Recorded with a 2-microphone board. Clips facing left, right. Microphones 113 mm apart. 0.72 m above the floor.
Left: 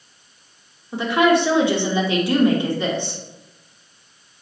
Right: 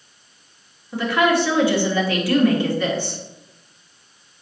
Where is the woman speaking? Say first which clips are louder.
Left 2 dB; 20° left (ahead or behind), 1.6 m.